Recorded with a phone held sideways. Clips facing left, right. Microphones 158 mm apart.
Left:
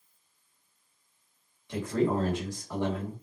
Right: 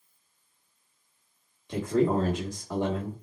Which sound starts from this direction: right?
A man speaking, at 1.7 s.